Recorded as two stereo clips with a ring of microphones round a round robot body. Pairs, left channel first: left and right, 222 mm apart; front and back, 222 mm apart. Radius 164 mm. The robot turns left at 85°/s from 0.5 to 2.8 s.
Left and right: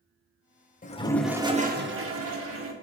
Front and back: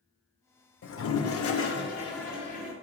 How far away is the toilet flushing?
About 0.9 m.